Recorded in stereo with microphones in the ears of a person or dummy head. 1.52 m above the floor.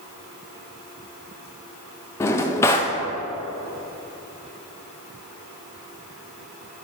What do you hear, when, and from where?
2.2 s a drawer: 15° left (ahead or behind), 0.7 m